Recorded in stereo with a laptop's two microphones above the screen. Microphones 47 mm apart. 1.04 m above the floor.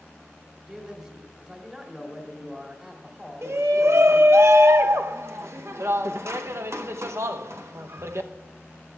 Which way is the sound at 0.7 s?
15° right (ahead or behind).